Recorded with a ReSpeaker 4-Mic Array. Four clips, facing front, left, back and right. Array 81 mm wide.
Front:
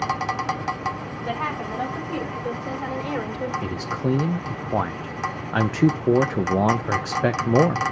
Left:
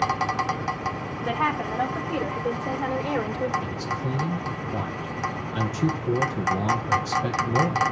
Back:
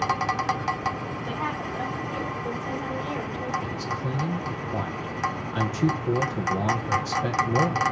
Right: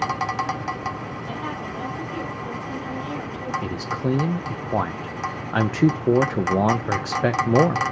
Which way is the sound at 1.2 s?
75° left.